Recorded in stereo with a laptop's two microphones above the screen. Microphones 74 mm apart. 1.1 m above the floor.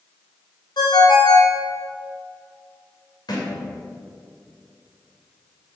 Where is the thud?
65° left (ahead or behind), 2.5 m.